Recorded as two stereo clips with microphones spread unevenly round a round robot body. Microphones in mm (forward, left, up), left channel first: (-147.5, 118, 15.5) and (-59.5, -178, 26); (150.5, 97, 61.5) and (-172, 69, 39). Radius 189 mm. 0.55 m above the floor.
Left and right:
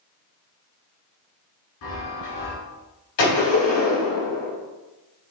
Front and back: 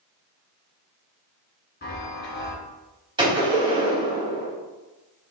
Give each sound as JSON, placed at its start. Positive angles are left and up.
{"t": 1.8, "sound": "a chime", "azimuth_deg": 65, "distance_m": 2.5}
{"t": 3.2, "sound": "a gunshot", "azimuth_deg": 110, "distance_m": 3.5}